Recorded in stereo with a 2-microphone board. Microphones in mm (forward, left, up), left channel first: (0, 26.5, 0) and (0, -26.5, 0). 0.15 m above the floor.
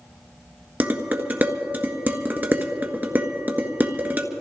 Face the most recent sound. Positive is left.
turn(degrees=-35)  # may be behind; listen again after turning